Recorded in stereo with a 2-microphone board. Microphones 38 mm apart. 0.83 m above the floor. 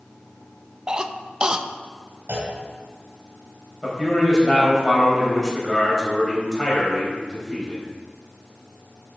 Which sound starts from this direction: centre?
A man speaking, at 3.8 s.